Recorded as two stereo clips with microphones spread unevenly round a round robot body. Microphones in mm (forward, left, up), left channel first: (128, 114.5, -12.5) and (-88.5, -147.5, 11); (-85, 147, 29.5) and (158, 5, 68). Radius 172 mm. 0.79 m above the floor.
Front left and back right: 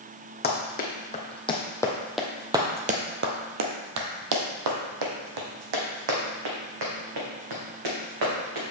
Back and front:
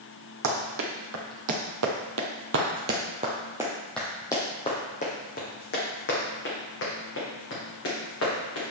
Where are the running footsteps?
15° right, 2 m; by 8.6 s 155° right, 4 m.